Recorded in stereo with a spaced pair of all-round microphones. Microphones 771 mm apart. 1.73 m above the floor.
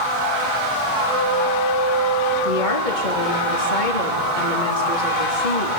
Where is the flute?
50° right (ahead or behind), 10 m.